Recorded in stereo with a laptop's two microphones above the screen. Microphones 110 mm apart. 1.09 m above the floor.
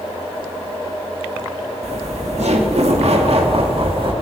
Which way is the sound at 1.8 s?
75° right (ahead or behind).